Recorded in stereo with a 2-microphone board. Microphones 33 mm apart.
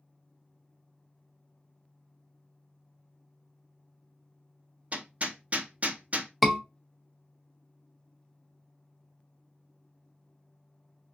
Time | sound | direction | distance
4.9 | hammering | 45° right (ahead or behind) | 0.6 m
6.4 | a scream | 5° right (ahead or behind) | 0.6 m